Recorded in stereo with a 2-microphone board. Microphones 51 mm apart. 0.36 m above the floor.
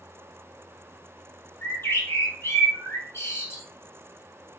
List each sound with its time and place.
1.6 s a bird: 60° left (ahead or behind), 1.8 m